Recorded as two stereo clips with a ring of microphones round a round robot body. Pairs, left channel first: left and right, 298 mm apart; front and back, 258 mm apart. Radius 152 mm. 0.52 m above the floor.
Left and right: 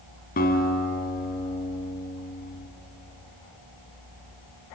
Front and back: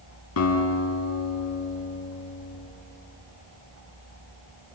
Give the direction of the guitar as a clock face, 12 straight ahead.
11 o'clock.